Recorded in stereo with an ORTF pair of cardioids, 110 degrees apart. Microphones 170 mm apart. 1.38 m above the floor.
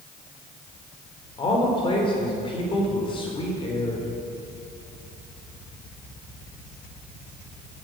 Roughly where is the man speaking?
Ahead left.